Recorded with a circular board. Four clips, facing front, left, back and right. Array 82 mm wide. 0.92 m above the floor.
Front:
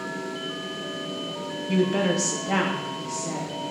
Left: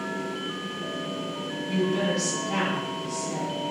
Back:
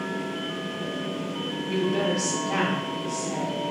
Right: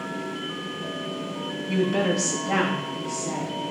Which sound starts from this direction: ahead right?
A woman speaking, at 1.7 s.